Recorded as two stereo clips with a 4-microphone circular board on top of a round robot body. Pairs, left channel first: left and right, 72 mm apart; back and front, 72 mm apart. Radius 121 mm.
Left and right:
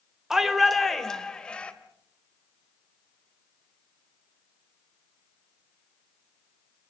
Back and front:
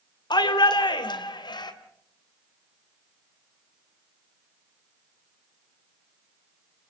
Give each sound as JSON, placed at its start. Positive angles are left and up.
{"t": 0.3, "sound": "a shout", "azimuth_deg": -175, "distance_m": 2.5}